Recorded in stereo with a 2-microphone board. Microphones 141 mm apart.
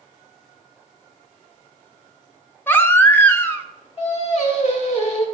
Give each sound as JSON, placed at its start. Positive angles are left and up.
{"t": 2.7, "sound": "a baby crying", "side_deg": 15, "distance_m": 0.6}
{"t": 4.0, "sound": "singing", "side_deg": 50, "distance_m": 1.6}